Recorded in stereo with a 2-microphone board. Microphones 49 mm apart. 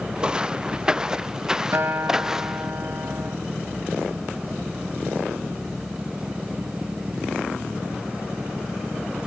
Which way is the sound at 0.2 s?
15° right (ahead or behind).